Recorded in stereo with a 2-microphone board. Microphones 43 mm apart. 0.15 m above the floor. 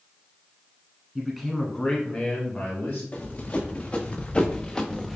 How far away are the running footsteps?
About 1.5 m.